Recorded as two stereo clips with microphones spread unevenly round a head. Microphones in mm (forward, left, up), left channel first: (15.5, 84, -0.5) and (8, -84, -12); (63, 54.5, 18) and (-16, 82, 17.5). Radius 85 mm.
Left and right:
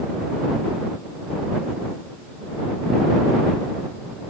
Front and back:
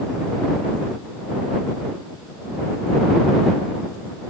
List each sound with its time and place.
Only background noise.